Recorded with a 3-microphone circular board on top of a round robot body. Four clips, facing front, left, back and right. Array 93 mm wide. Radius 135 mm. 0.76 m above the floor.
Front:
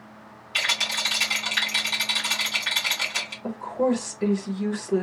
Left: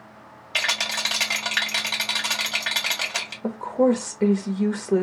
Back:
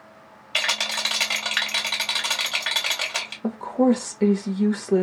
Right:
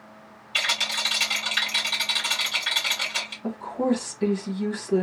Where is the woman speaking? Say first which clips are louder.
Left 5 dB, back 4 dB; 135° left, 1.2 m.